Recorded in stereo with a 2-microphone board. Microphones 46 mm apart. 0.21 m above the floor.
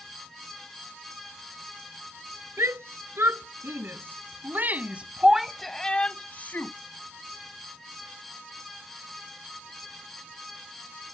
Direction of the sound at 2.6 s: 70° right (ahead or behind).